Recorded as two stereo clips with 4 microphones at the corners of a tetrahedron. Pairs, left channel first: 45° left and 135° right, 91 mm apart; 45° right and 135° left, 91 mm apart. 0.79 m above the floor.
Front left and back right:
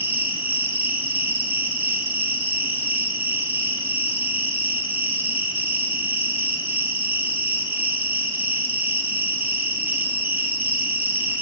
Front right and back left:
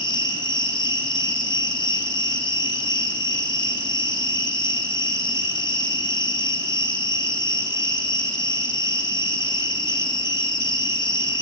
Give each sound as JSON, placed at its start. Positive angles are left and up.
{"t": 0.0, "sound": "an insect", "azimuth_deg": -70, "distance_m": 1.4}